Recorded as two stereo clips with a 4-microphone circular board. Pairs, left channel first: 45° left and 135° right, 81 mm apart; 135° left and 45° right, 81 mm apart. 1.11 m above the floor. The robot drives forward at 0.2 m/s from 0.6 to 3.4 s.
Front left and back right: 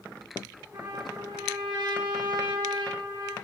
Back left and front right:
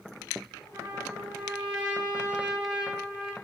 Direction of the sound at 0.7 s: 120° right.